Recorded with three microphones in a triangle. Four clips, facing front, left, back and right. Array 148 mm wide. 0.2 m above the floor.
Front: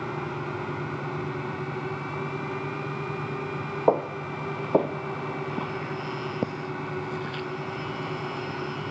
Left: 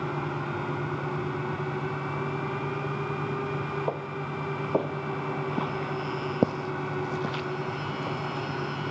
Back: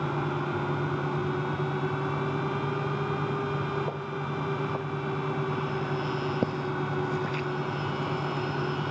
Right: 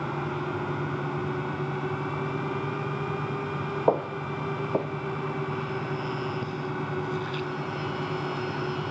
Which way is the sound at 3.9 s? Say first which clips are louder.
Right 6 dB, front 9 dB; 30° right.